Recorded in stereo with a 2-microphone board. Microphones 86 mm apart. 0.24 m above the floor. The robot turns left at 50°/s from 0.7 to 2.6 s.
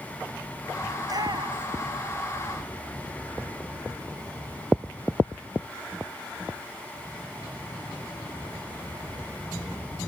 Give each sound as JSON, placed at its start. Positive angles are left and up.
{"t": 1.0, "sound": "a shout", "side_deg": -40}